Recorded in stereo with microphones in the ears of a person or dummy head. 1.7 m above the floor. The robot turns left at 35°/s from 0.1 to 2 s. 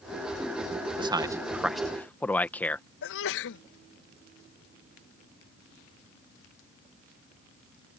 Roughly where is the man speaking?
Right.